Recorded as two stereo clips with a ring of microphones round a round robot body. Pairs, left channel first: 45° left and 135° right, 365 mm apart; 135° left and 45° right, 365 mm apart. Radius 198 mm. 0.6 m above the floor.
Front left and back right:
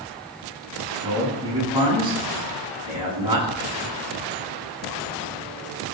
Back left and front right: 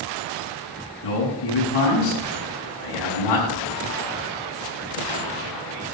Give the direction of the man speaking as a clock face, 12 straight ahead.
7 o'clock.